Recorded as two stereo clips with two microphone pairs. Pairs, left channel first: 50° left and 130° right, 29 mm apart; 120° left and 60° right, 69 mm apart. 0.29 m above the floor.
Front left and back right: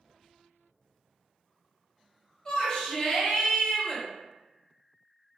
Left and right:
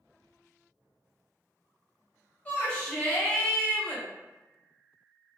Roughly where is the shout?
Left.